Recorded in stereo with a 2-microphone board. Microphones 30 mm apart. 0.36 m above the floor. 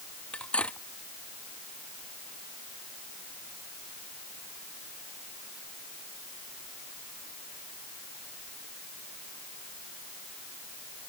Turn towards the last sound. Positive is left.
turn(degrees=40)  # may be behind; listen again after turning